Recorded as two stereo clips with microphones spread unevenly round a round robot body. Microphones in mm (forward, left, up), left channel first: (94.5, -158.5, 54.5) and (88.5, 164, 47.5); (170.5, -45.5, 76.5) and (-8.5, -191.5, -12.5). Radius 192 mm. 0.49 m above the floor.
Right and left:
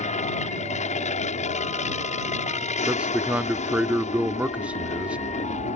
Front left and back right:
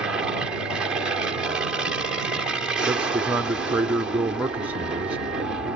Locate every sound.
0.0 s an aircraft: 125° right
2.9 s a man speaking: 175° left